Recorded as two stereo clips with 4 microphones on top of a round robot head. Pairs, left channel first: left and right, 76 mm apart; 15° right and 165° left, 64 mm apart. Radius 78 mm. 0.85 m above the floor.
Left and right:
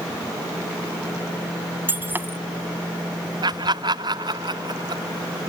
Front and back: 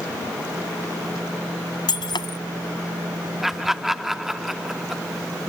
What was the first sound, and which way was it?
Breaking glass, 20° right.